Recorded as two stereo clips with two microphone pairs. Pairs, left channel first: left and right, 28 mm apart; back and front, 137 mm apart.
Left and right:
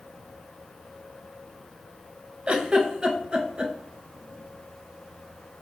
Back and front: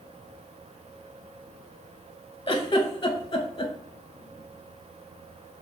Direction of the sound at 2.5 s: 140° right.